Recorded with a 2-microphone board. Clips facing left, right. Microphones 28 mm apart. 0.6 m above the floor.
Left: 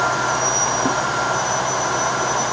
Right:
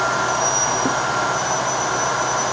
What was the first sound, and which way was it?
Only background noise.